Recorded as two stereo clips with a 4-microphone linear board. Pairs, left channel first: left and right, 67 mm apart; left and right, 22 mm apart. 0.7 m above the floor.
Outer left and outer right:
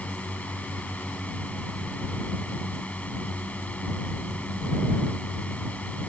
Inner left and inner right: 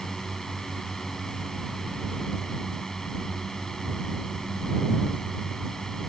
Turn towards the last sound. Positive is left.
turn(degrees=20)  # may be behind; listen again after turning